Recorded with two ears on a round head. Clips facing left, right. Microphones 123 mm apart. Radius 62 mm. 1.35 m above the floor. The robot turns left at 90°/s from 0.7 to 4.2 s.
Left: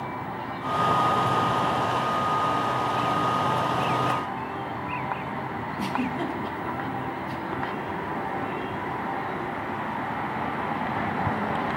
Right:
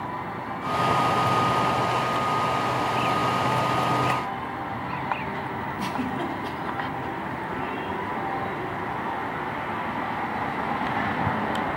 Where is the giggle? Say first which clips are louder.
Left 1 dB; 5° left (ahead or behind), 1.3 m.